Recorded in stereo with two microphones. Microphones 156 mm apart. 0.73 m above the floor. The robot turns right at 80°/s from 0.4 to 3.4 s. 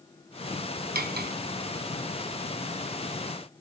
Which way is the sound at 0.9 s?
75° right (ahead or behind).